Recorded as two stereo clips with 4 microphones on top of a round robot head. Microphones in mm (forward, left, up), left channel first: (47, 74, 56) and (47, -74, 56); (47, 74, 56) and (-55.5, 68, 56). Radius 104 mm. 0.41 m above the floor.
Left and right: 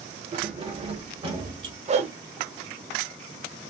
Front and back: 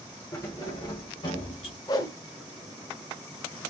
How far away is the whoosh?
About 0.6 m.